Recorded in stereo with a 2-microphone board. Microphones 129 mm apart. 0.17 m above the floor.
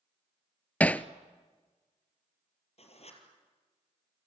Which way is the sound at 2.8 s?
55° left (ahead or behind).